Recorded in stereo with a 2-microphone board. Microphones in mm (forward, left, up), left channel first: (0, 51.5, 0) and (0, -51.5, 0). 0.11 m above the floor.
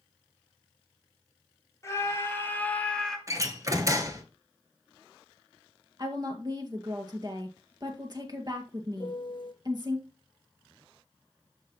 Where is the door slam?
30° right (ahead or behind), 1.1 m.